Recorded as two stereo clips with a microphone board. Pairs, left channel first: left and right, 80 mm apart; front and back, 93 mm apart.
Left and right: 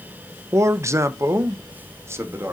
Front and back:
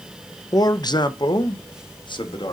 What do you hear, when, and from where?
0.5 s a man speaking: 40° right, 0.6 m; by 2.5 s 30° right, 1.6 m